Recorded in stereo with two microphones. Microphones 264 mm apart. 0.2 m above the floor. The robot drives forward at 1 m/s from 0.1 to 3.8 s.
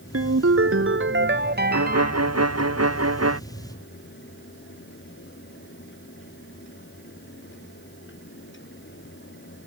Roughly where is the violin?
Right.